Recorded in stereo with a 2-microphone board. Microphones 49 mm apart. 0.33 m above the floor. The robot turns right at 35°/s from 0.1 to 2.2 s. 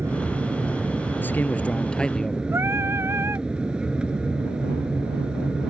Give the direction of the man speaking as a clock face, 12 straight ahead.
8 o'clock.